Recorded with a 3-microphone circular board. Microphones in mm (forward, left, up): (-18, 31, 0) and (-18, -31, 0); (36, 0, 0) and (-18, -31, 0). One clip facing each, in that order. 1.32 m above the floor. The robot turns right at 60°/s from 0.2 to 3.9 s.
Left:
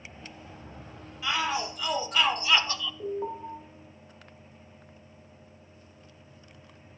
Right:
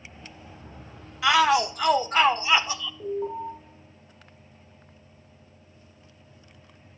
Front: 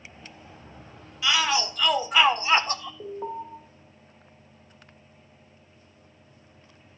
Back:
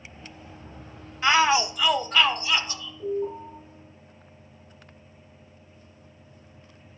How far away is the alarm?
About 2.5 m.